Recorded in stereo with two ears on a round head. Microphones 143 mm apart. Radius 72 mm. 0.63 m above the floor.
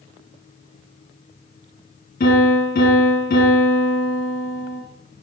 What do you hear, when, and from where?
2.2 s a piano: 50° left (ahead or behind), 7.5 m